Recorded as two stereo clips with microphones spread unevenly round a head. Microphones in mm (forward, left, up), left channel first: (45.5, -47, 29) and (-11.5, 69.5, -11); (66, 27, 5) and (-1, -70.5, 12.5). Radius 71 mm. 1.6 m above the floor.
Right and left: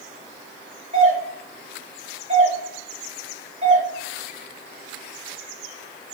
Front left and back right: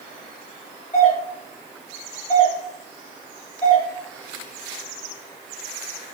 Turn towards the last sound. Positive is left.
turn(degrees=95)